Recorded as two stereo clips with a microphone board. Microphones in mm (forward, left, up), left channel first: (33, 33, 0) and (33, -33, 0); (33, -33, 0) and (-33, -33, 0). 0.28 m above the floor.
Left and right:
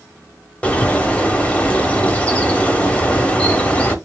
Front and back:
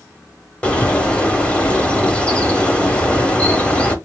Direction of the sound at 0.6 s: 45° left.